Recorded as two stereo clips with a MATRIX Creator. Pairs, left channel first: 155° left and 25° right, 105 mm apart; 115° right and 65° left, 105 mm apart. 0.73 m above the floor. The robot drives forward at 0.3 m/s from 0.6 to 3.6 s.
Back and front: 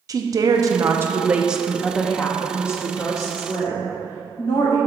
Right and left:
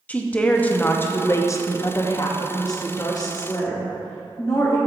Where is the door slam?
No door slam in this recording.